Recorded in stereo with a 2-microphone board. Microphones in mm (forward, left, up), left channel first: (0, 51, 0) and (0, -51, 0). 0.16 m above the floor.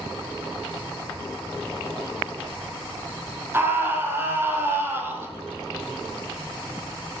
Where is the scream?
25° right (ahead or behind), 7 m.